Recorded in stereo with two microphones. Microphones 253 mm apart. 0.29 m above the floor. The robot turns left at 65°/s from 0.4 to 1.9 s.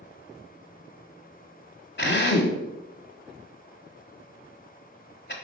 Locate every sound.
2.0 s a drill: 45° left (ahead or behind), 1.3 m